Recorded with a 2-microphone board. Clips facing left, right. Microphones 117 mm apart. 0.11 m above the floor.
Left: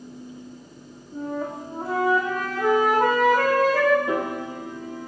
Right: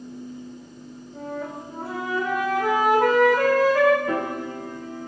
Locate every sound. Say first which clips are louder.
1.1 s a flute: left 3 dB; 60° left (ahead or behind), 6 m
4.1 s a piano: even; 25° left (ahead or behind), 2.5 m